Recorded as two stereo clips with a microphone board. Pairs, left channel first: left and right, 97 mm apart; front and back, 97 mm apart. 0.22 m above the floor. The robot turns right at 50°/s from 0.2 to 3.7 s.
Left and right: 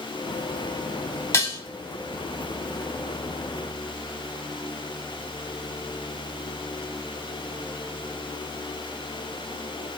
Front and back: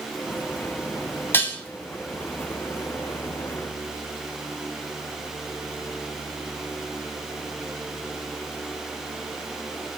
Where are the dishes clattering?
50° left, 0.8 m; by 1.6 s 65° left, 0.8 m.